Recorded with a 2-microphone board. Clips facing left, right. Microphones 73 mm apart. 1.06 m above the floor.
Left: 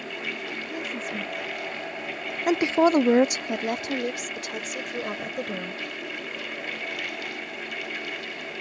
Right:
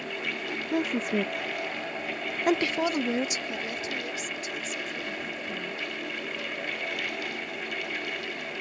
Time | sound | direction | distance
0.7 | a woman speaking | 90° right | ?